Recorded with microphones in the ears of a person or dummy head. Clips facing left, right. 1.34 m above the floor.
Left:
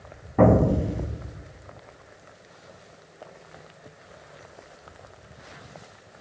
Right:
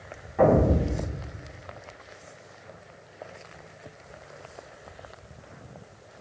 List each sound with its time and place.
0.4 s an explosion: 55° left (ahead or behind), 0.8 m